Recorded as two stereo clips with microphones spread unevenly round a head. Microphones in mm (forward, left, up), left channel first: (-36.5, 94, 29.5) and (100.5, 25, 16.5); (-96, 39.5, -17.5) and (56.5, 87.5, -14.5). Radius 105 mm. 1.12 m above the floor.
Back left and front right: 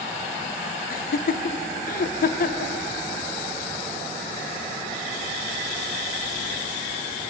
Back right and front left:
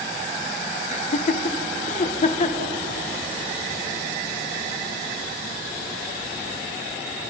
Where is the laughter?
170° left, 0.9 m.